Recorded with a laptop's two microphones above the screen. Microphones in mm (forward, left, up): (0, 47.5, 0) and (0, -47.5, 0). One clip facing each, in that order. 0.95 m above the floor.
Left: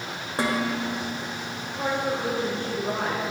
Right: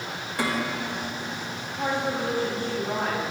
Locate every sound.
0.4 s dishes clattering: 35° left (ahead or behind), 2.5 m
1.8 s a woman speaking: 65° left (ahead or behind), 4 m